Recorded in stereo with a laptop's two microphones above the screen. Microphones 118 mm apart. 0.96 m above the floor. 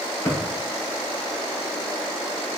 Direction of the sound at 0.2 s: 25° left (ahead or behind).